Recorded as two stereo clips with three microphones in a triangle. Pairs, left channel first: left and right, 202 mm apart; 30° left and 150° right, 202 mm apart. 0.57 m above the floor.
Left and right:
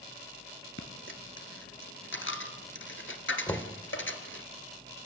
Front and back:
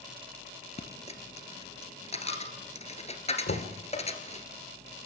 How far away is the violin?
No violin in this recording.